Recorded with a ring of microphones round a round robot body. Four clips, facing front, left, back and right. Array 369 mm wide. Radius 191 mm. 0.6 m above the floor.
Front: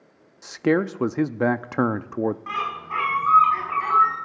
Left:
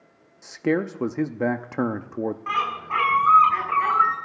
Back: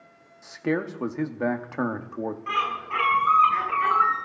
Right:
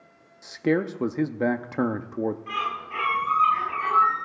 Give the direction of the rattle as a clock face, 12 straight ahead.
I don't hear a rattle.